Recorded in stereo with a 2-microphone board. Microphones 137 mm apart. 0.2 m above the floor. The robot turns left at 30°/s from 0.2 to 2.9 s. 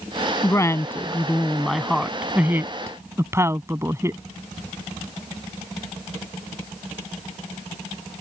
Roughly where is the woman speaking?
Ahead left.